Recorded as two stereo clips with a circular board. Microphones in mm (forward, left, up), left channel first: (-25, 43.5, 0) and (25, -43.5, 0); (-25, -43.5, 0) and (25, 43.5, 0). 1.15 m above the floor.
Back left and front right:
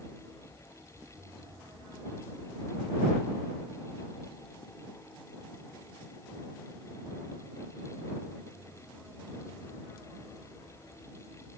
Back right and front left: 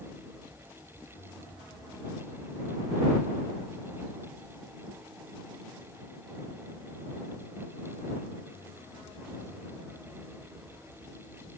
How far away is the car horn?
I don't hear a car horn.